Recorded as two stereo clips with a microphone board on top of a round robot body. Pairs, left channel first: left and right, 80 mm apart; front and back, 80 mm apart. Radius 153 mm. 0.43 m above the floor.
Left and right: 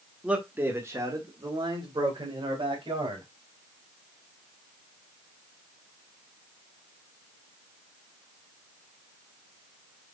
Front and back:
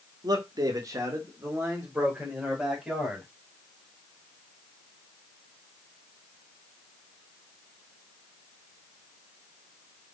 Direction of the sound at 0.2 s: 165° right.